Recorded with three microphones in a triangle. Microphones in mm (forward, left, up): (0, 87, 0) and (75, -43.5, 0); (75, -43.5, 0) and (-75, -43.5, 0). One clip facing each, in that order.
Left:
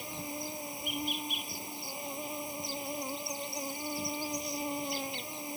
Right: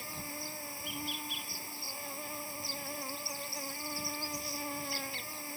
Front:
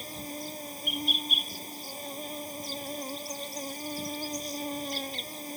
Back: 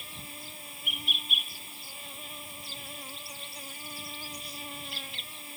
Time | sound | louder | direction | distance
0.0 | an insect | left 4 dB, front 9 dB | 50° left | ?